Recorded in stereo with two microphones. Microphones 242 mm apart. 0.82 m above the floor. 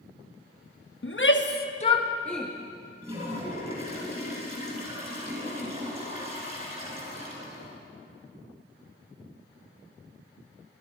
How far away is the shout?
About 1.1 m.